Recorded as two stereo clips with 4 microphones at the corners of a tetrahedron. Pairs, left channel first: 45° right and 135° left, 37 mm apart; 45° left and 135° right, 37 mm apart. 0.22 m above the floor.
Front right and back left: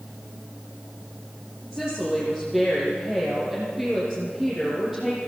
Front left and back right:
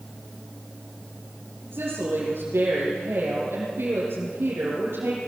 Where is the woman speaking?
145° right, 7 m.